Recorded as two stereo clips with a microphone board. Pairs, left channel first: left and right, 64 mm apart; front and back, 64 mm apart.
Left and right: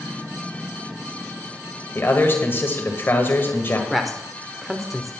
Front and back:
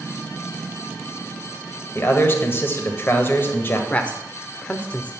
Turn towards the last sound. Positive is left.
turn(degrees=-5)